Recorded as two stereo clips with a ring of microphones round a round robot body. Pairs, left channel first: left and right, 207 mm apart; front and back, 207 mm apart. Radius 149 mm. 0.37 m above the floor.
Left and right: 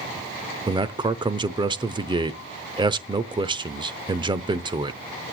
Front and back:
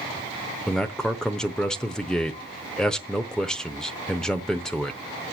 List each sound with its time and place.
0.7 s a man speaking: 80° right, 0.8 m